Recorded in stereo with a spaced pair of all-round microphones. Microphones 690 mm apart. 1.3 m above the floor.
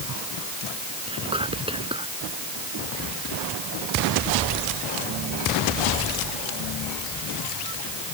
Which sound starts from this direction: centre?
Whispering, at 1.1 s.